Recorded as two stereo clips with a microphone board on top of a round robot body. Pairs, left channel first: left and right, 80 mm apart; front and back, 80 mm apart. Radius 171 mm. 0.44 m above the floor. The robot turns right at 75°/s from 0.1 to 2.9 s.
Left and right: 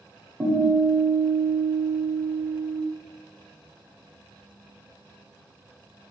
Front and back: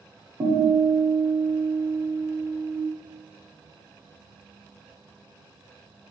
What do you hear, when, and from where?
0.4 s a guitar: 160° right, 1.3 m; by 2.8 s 20° left, 1.3 m